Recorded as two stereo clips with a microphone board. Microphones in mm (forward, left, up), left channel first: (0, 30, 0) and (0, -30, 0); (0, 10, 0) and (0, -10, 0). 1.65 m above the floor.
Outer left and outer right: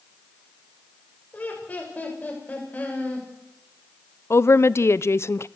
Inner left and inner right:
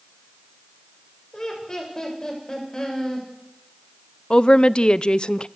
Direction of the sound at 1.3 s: 25° left (ahead or behind).